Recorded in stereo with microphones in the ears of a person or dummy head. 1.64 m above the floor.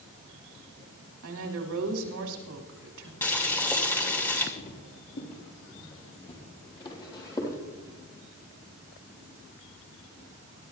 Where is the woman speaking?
80° right, 3 m.